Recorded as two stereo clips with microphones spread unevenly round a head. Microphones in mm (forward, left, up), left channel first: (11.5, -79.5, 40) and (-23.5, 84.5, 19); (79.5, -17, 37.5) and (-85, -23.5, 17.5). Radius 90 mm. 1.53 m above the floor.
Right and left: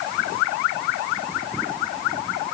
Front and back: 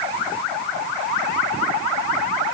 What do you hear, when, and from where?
Only background noise.